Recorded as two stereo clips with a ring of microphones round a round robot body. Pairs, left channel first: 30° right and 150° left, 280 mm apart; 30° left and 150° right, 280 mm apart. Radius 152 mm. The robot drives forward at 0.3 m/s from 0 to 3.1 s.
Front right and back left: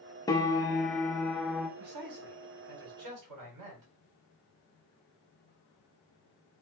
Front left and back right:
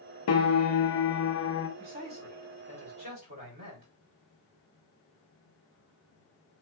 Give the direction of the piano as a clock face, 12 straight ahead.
10 o'clock.